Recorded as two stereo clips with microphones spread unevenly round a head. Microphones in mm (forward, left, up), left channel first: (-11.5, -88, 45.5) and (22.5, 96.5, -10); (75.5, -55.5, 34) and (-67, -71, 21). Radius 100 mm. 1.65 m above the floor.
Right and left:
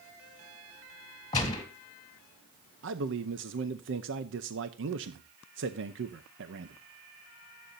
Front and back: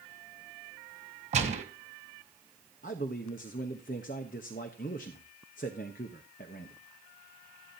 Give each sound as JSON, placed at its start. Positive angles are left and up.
{"t": 1.3, "sound": "a gunshot", "azimuth_deg": -145, "distance_m": 2.0}
{"t": 2.8, "sound": "a man speaking", "azimuth_deg": 50, "distance_m": 0.7}